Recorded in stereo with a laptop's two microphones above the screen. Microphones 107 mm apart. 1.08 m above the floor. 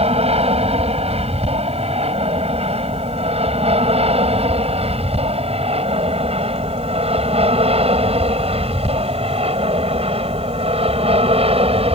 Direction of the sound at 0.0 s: 75° right (ahead or behind).